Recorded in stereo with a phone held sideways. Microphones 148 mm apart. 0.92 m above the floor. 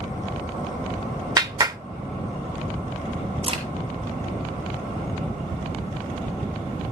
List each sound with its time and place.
1.4 s a clap: 25° right (ahead or behind), 0.7 m
3.4 s a crack: 40° right (ahead or behind), 4.5 m